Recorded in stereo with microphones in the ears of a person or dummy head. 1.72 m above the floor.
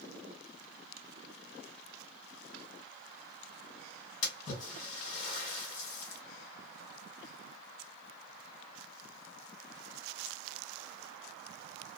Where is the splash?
45° left (ahead or behind), 1.5 m.